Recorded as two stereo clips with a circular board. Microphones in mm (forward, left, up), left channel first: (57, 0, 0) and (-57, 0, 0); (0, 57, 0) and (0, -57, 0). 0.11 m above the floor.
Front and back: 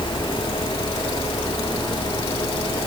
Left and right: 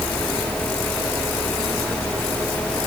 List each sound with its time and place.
Only background noise.